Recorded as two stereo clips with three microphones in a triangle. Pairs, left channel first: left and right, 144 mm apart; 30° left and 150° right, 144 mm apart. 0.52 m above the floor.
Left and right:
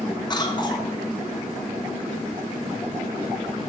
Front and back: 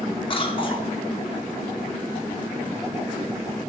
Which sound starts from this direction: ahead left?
A cough, at 0.3 s.